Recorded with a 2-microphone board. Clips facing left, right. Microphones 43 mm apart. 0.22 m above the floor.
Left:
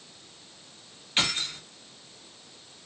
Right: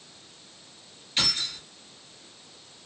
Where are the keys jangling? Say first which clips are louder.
Left 2 dB; 35° left (ahead or behind), 1.5 m.